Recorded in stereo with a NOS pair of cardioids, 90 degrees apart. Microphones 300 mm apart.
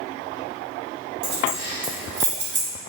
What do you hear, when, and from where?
1.2 s keys jangling: 55° right, 1.2 m